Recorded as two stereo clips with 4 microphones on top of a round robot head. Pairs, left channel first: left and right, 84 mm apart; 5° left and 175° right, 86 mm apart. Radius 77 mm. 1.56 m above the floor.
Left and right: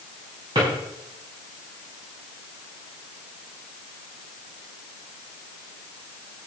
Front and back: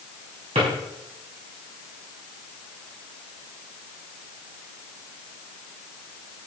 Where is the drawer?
145° right, 4.5 m.